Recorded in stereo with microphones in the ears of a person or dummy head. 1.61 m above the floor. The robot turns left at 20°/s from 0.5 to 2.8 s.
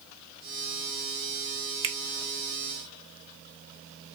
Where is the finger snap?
30° right (ahead or behind), 0.5 m.